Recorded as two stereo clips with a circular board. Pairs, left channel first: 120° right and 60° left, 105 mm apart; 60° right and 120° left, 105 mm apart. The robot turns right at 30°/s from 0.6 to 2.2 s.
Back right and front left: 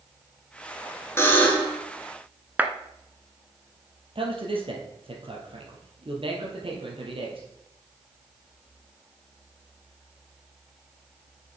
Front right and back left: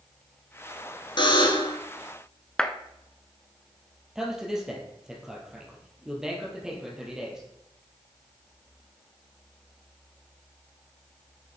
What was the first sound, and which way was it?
A buzzer, 65° right.